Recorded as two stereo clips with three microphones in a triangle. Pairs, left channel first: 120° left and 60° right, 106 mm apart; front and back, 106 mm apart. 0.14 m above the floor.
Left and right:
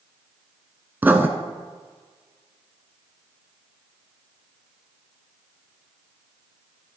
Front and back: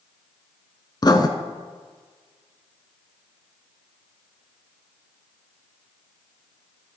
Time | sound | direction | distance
1.0 | writing | 5° left | 0.8 m